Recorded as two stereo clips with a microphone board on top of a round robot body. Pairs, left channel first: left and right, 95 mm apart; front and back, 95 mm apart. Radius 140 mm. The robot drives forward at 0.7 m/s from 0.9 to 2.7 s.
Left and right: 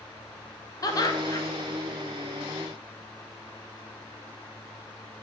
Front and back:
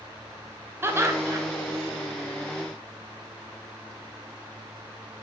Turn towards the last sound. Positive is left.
turn(degrees=150)